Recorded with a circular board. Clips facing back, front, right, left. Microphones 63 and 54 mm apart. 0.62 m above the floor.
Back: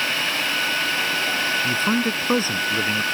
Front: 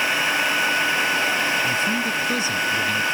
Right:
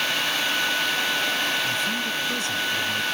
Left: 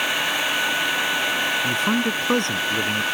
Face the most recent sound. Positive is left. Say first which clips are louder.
# back 1 dB, left 5 dB
turn(degrees=130)